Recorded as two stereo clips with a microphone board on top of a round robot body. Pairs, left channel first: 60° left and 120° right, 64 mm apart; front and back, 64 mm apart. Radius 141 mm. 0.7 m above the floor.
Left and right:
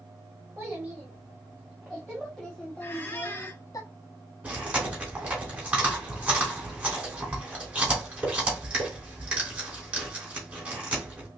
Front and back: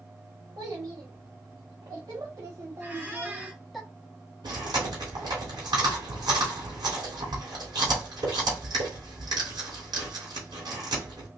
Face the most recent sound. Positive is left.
turn(degrees=170)